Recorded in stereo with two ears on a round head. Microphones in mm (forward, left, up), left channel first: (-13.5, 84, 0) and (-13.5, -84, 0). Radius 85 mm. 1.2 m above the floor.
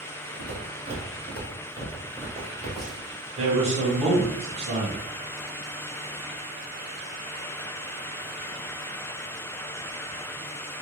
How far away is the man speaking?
About 1.0 m.